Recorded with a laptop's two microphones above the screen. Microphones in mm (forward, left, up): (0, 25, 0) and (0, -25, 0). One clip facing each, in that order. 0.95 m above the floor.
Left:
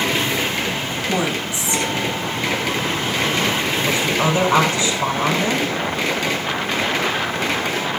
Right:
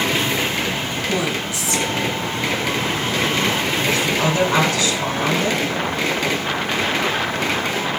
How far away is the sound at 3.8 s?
About 9 m.